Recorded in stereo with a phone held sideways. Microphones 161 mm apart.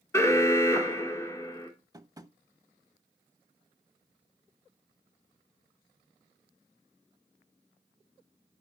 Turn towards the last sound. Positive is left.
turn(degrees=-25)  # may be behind; listen again after turning